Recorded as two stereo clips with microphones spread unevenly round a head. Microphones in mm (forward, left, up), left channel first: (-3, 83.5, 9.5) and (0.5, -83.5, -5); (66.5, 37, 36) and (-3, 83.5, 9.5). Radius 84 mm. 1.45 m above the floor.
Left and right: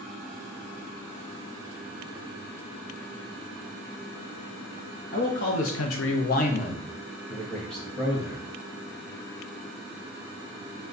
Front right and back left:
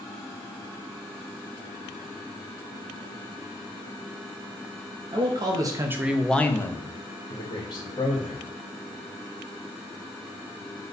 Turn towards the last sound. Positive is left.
turn(degrees=0)